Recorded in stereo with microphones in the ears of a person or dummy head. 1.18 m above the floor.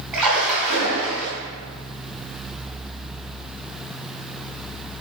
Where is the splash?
5° right (ahead or behind), 3 m.